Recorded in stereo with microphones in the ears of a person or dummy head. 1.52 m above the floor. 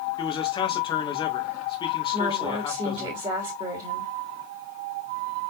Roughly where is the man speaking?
Left.